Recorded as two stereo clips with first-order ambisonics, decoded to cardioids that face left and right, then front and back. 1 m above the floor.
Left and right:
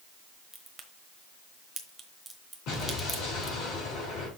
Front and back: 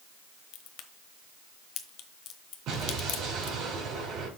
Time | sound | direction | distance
0.5 | a crack | 5° right | 1.1 m
2.7 | an explosion | 135° left | 5.5 m